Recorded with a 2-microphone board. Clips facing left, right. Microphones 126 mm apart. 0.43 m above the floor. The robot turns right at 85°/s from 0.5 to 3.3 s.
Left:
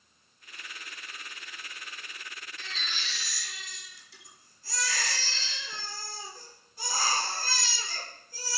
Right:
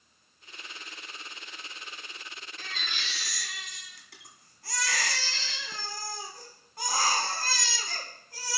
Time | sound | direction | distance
2.6 | a baby crying | 135° right | 2.5 m